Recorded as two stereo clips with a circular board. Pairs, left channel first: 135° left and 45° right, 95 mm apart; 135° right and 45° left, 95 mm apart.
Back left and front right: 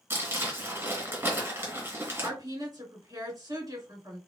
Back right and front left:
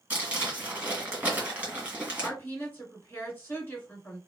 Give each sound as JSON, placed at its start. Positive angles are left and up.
{"t": 0.1, "sound": "crumpling", "azimuth_deg": -15, "distance_m": 1.8}
{"t": 2.2, "sound": "a woman speaking", "azimuth_deg": -70, "distance_m": 2.0}